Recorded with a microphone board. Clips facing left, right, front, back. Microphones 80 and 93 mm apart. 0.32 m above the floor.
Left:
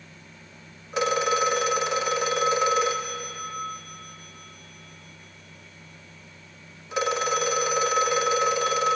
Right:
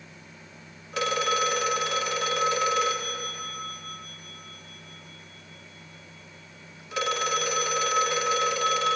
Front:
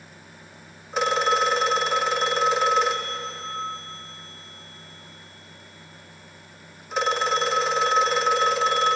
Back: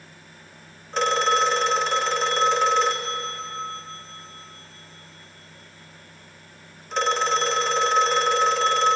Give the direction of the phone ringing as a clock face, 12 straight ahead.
10 o'clock.